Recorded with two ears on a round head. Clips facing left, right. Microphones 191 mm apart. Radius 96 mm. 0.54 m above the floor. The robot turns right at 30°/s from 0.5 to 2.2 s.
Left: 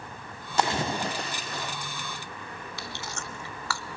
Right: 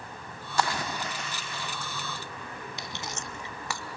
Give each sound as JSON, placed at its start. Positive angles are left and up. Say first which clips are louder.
{"t": 0.6, "sound": "a splash", "louder": "left 3 dB", "azimuth_deg": 25, "distance_m": 0.7}
{"t": 2.8, "sound": "chewing", "louder": "even", "side_deg": -15, "distance_m": 0.7}